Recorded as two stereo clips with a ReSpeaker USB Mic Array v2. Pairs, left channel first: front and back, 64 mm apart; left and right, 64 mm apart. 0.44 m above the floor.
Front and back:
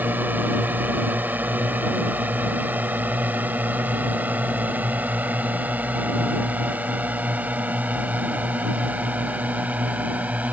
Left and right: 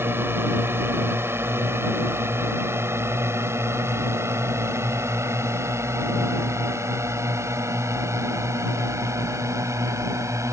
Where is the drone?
130° right; by 10.5 s 115° right.